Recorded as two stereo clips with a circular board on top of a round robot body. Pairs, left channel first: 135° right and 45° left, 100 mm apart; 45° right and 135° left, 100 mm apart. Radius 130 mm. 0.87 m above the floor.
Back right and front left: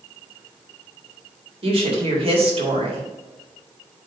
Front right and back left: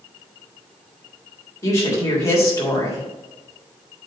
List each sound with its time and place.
1.6 s a woman speaking: 15° left, 3.5 m